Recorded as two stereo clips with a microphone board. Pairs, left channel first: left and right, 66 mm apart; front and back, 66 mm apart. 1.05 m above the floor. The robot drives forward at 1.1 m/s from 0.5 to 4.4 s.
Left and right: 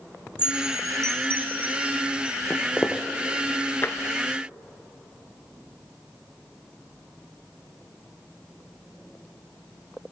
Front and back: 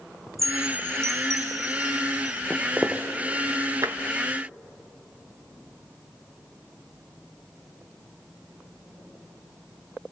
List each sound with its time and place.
0.4 s a chime: 90° right, 0.6 m; by 2.4 s 165° right, 2 m
2.5 s footsteps: 105° left, 1.1 m; by 3.0 s 145° left, 1.3 m
3.8 s tapping: 145° left, 0.8 m; by 4.0 s 150° left, 1.0 m